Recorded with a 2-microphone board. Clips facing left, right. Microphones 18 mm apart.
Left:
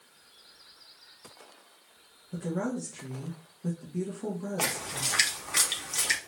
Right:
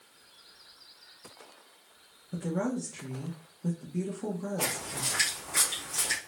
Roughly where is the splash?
Left.